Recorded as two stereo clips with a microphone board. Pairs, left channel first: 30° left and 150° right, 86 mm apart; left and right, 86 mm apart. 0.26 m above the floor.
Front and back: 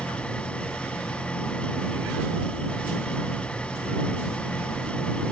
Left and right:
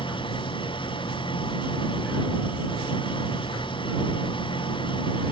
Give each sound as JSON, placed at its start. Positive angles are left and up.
{"t": 0.0, "sound": "an engine running", "azimuth_deg": 105}